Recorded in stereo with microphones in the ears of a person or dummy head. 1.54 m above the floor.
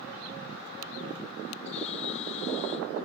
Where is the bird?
35° left (ahead or behind).